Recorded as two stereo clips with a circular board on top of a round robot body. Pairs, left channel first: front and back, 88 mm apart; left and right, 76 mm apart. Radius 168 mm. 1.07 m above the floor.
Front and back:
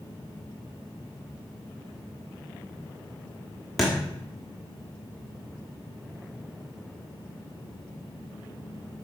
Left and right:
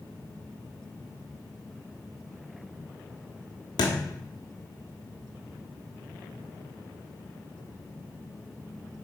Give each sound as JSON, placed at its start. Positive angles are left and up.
{"t": 3.8, "sound": "a thud", "azimuth_deg": 90, "distance_m": 1.0}